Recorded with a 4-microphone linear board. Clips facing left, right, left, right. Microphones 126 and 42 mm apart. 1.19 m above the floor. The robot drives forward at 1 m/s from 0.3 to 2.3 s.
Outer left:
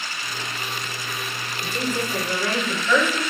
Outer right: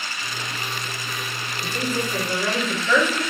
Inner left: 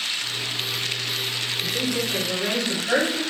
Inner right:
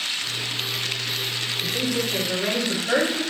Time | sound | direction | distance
1.6 | a woman speaking | 10° left (ahead or behind) | 1.8 m